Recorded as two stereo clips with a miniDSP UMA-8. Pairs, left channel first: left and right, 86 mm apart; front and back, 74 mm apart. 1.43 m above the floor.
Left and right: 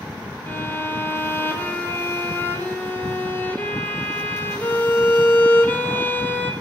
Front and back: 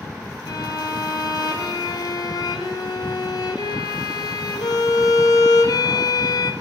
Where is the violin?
25° left, 4.5 m.